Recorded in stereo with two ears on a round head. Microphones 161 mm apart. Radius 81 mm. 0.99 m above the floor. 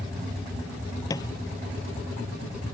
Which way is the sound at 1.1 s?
20° left (ahead or behind).